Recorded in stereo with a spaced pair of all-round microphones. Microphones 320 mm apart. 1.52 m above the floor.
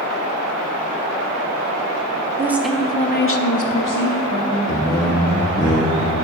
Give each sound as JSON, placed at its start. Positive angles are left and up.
{"t": 2.4, "sound": "a woman speaking", "side_deg": -10, "distance_m": 1.0}
{"t": 4.7, "sound": "a man speaking", "side_deg": 15, "distance_m": 1.1}